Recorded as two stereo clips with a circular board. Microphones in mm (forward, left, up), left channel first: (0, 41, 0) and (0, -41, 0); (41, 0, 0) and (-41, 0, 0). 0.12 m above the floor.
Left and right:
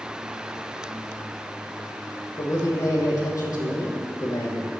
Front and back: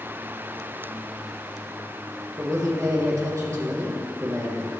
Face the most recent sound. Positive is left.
turn(degrees=130)